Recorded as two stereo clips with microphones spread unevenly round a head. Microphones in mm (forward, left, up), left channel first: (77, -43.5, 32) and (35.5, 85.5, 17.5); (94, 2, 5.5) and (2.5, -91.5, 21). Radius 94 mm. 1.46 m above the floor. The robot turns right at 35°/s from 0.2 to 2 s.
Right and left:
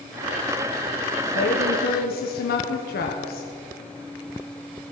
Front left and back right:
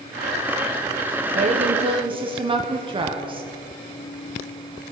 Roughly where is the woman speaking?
Right.